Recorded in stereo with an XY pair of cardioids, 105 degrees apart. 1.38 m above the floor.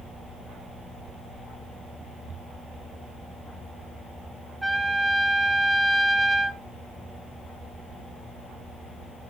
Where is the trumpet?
10° right, 3.5 m.